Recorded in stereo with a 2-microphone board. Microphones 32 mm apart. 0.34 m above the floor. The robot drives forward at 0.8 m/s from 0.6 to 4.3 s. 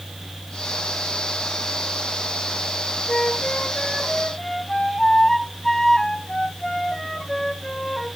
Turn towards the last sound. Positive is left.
turn(degrees=15)  # may be behind; listen again after turning